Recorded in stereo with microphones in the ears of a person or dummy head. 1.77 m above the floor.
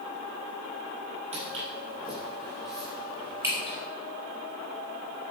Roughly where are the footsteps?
Right.